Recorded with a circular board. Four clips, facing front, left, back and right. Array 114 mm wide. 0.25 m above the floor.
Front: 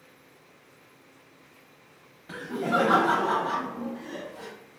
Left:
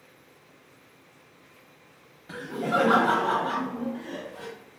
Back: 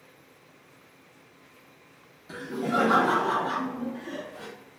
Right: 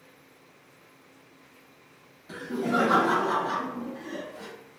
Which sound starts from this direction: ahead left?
Laughter, at 2.3 s.